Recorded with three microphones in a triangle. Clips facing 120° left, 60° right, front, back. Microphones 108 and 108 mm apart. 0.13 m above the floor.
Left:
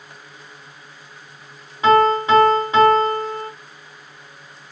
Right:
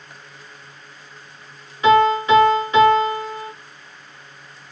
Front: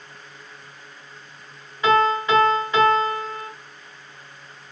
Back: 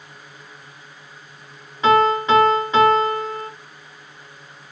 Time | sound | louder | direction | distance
1.8 | a piano | even, back 3 dB | 140° left | 2 m